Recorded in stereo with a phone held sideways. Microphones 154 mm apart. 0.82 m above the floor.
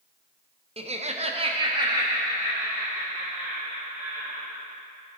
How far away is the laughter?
About 0.6 m.